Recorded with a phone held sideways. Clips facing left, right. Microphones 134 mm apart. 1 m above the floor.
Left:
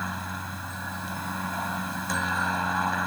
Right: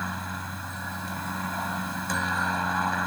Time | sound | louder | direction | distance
0.0 | a helicopter | even | centre (ahead or behind) | ?